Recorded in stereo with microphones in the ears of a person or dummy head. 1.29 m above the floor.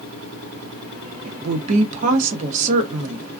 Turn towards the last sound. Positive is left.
turn(degrees=-40)  # may be behind; listen again after turning